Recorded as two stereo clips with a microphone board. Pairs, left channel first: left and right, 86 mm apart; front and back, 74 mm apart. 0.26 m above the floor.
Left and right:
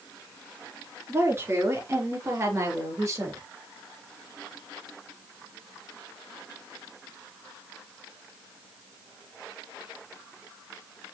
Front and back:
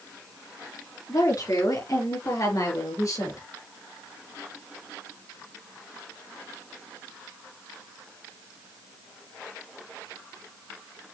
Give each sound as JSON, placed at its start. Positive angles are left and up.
{"t": 1.1, "sound": "a woman speaking", "azimuth_deg": -35, "distance_m": 3.5}